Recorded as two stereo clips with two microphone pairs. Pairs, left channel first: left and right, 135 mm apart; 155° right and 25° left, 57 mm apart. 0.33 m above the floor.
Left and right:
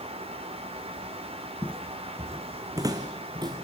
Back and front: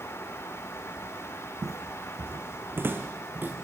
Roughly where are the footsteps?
Ahead left.